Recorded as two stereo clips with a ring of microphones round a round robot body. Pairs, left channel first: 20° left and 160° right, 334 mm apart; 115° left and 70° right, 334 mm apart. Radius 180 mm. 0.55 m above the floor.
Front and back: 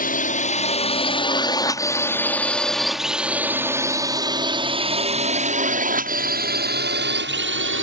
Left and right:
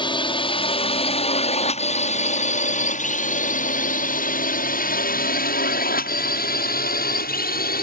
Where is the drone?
55° left; by 7.8 s 165° left.